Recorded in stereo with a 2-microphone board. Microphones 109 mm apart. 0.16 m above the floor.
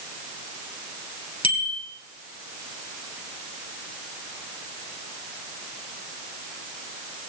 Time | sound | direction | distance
1.4 | a bicycle bell | 55° left (ahead or behind) | 2.5 m